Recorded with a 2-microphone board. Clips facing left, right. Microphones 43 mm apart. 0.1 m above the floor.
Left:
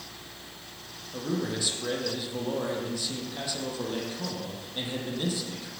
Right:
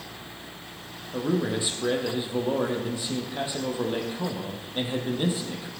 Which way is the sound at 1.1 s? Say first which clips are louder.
Right 5 dB; 25° right (ahead or behind).